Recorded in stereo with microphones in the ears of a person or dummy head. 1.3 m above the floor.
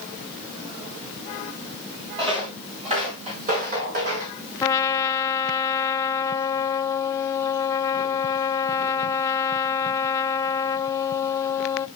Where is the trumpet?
15° left (ahead or behind), 0.6 m.